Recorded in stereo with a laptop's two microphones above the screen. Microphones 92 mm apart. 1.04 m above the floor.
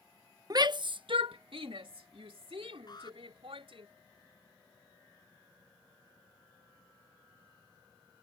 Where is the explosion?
I don't hear an explosion.